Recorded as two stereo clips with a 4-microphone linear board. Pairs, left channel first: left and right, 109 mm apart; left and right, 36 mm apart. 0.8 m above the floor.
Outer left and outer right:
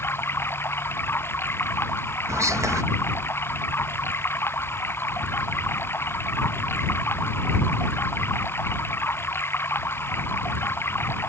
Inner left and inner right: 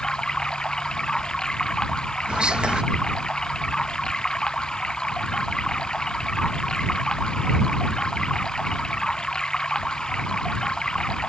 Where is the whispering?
25° right (ahead or behind).